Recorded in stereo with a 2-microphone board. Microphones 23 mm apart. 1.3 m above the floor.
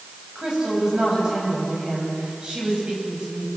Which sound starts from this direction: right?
A woman speaking, at 0.3 s.